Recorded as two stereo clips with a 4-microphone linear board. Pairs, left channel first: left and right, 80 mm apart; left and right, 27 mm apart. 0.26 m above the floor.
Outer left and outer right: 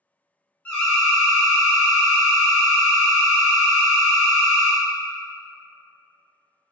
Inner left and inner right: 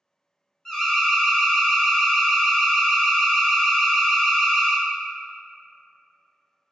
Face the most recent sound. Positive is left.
turn(degrees=20)  # may be behind; listen again after turning